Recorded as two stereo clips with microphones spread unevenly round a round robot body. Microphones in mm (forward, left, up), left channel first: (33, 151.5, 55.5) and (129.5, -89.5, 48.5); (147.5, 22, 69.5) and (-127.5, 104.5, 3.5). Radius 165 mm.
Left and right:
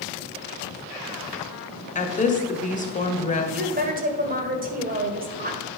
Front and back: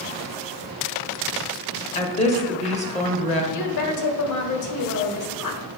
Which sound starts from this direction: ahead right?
A woman speaking, at 3.5 s.